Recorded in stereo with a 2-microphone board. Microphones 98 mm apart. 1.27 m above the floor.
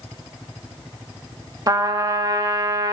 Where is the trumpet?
40° right (ahead or behind), 1.5 m.